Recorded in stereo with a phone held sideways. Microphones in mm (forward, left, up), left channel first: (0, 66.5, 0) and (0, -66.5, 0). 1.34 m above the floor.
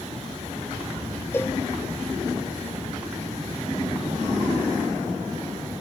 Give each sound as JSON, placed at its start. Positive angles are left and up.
{"t": 1.3, "sound": "a cowbell", "side_deg": 15, "distance_m": 0.9}